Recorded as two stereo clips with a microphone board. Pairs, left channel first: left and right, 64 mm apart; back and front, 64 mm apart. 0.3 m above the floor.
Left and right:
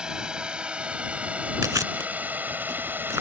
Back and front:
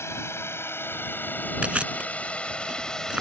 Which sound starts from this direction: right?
Chewing, at 1.6 s.